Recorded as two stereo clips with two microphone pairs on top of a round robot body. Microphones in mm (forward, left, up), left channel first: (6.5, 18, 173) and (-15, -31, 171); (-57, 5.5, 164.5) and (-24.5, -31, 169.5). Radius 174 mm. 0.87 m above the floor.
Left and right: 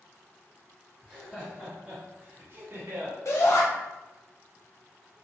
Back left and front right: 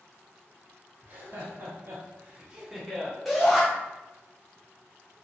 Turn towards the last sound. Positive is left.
turn(degrees=45)